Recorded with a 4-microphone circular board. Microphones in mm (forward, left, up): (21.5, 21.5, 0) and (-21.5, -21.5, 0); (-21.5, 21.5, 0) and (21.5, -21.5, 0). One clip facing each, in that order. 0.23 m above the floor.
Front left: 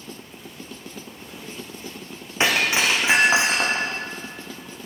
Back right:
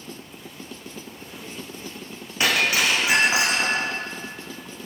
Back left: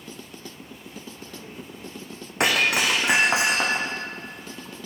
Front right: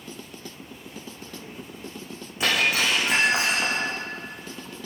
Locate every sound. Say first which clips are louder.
2.4 s breaking glass: front left 1 dB, back left 2 dB; 110° left, 5.5 m